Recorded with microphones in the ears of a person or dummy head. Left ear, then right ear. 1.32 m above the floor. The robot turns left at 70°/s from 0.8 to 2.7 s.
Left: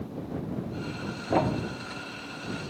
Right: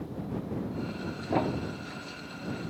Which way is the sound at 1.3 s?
Centre (ahead or behind).